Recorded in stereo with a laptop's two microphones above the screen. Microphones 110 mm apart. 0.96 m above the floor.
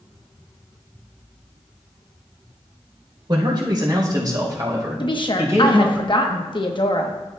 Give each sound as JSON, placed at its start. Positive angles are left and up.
{"t": 3.3, "sound": "a man speaking", "side_deg": -45, "distance_m": 3.5}
{"t": 5.0, "sound": "a woman speaking", "side_deg": 45, "distance_m": 0.9}